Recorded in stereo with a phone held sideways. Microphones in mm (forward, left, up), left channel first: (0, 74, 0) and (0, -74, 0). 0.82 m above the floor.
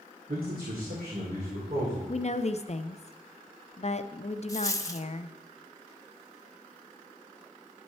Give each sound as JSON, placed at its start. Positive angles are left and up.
{"t": 0.3, "sound": "a man speaking", "side_deg": -75, "distance_m": 2.0}
{"t": 2.1, "sound": "a woman speaking", "side_deg": 50, "distance_m": 0.6}
{"t": 4.5, "sound": "a dropped coin", "side_deg": 25, "distance_m": 0.6}